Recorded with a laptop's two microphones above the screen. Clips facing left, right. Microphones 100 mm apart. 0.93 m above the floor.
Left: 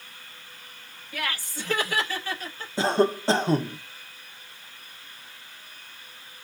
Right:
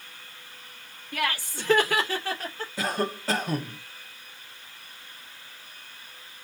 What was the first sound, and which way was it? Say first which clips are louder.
Laughter: right 3 dB; 70° right (ahead or behind).